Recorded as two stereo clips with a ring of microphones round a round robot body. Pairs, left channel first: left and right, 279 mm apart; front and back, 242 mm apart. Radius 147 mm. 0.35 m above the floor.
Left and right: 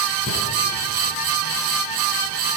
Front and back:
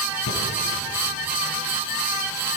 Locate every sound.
0.3 s breathing: 20° left, 4 m